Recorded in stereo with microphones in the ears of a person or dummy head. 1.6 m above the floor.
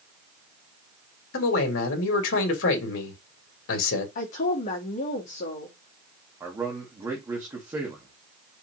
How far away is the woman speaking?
About 2.5 m.